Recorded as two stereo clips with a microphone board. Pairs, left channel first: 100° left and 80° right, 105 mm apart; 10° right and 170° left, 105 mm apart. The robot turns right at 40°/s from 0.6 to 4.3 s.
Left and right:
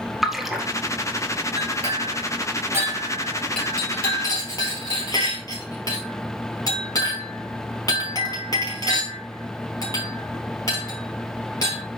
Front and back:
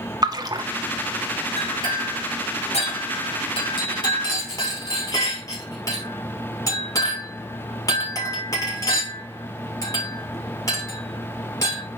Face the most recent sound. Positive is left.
turn(degrees=45)